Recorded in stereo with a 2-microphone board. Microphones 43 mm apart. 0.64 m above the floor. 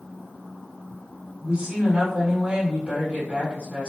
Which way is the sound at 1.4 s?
25° right (ahead or behind).